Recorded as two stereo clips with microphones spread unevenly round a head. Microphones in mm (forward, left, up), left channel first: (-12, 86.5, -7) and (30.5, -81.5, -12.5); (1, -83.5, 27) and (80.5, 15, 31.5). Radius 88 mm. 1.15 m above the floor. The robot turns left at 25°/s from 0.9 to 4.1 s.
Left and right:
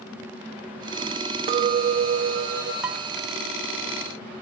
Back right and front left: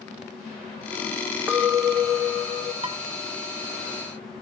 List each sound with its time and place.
1.5 s a clink: 25° right, 0.5 m; by 2.7 s 55° right, 0.5 m
2.8 s dishes clattering: 10° left, 0.7 m; by 3.0 s 5° left, 0.7 m